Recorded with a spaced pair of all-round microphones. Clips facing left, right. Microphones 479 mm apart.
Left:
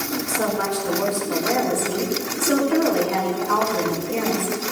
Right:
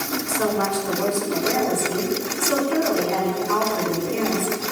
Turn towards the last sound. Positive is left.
turn(degrees=70)  # may be behind; listen again after turning